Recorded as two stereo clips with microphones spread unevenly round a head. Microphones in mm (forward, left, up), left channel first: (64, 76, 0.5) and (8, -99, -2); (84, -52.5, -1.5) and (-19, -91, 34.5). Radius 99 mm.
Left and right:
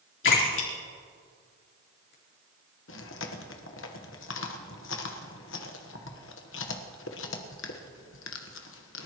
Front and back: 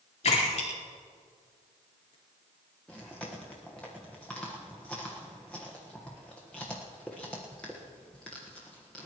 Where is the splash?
60° left, 4.5 m.